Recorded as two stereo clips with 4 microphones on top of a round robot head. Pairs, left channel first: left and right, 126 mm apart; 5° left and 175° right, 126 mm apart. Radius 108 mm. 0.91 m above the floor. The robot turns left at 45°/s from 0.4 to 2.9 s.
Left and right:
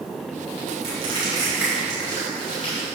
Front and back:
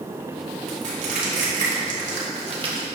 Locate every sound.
0.7 s crushing: 130° right, 2 m; by 2.9 s 135° left, 2 m